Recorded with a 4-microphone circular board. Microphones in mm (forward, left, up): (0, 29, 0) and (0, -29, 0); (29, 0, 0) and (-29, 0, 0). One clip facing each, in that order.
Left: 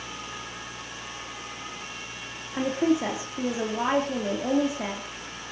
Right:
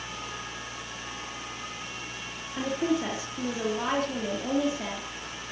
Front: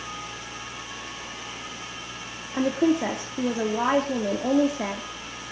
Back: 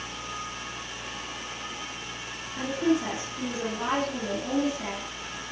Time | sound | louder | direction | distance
2.5 | a woman speaking | left 4 dB, front 4 dB | 25° left | 3.5 m